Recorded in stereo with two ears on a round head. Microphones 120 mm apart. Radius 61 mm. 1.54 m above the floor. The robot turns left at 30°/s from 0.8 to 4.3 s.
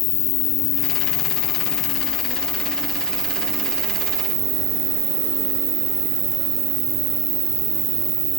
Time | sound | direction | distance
0.0 | an insect | 55° left | 0.7 m